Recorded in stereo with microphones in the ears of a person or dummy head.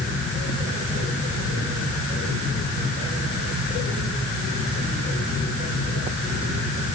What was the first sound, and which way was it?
Only background noise.